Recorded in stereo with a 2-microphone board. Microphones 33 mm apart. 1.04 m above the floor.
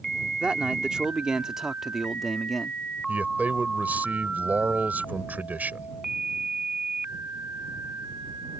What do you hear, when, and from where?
0.4 s a man speaking: 35° right (ahead or behind); by 2.8 s 5° left (ahead or behind)
3.1 s a man speaking: 60° right (ahead or behind)